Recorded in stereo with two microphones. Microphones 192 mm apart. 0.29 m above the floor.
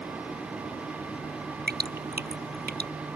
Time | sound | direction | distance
1.7 | dripping | 55° right (ahead or behind) | ?